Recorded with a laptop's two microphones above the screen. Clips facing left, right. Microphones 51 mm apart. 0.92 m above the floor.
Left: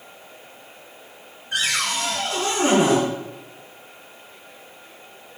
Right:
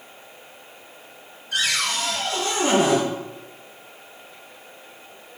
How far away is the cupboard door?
About 3.5 m.